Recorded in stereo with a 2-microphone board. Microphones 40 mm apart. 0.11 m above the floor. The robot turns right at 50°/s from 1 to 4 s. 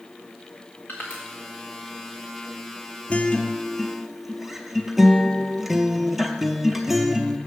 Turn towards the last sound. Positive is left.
turn(degrees=-170)